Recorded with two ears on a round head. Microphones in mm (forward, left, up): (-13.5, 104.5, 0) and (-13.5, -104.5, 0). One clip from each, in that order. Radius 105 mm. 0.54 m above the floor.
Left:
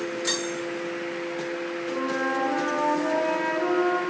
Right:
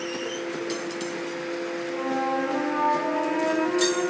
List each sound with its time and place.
1.9 s a flute: 55° left (ahead or behind), 3 m